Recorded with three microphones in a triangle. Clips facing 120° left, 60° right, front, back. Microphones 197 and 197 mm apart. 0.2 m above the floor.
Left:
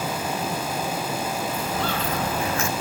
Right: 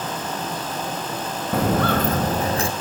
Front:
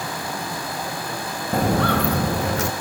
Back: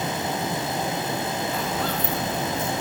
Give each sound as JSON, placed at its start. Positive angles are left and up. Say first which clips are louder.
{"t": 1.5, "sound": "footsteps", "louder": "right 7 dB, front 7 dB", "azimuth_deg": -40, "distance_m": 0.8}